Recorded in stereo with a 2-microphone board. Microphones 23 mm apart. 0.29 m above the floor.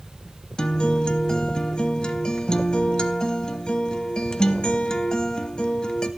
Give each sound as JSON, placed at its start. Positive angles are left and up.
{"t": 0.6, "sound": "a guitar", "side_deg": 35, "distance_m": 0.7}